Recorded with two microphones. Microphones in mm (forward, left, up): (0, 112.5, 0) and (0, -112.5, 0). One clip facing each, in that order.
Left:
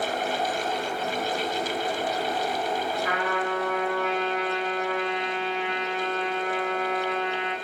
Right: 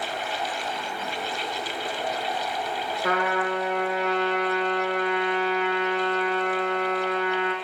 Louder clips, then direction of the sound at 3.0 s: Right 2 dB; 75° right (ahead or behind).